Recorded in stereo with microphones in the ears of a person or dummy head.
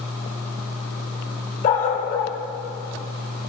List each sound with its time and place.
1.6 s a dog barking: 55° left (ahead or behind), 2.5 m